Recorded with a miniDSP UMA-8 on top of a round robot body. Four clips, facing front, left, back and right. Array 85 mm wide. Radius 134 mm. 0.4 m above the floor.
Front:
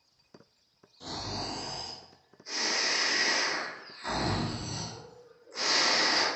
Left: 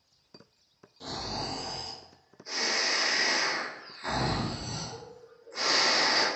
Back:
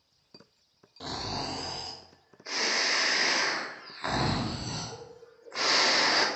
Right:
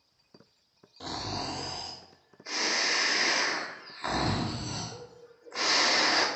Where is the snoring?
145° right, 0.7 m.